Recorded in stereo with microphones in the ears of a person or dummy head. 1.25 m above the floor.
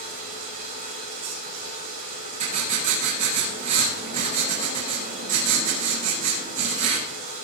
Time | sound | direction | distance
0.0 | running water | 45° right (ahead or behind) | 8 m
2.4 | writing | 45° right (ahead or behind) | 6.5 m